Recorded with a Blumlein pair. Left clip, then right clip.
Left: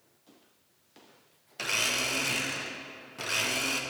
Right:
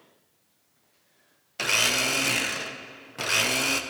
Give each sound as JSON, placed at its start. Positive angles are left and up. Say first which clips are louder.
{"t": 1.6, "sound": "a blender", "louder": "right 5 dB", "azimuth_deg": -20, "distance_m": 1.0}